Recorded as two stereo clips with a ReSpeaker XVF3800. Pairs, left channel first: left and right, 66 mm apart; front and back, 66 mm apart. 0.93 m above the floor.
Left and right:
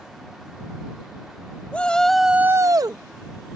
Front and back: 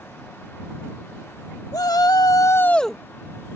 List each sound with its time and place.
1.7 s a shout: 20° left; by 3.0 s 95° right